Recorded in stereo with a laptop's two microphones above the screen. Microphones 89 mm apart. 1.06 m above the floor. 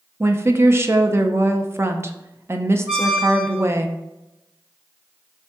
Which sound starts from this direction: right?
A woman speaking, at 0.2 s.